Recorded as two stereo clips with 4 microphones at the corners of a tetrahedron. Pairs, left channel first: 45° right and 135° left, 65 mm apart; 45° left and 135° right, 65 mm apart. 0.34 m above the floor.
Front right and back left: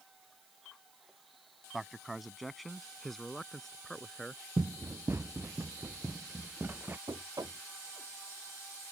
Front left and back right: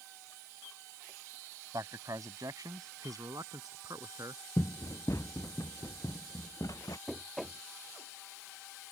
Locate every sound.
1.7 s a man speaking: 135° right; by 4.4 s 125° right
4.6 s running footsteps: 95° left; by 7.0 s 75° left
7.1 s knocking: 130° left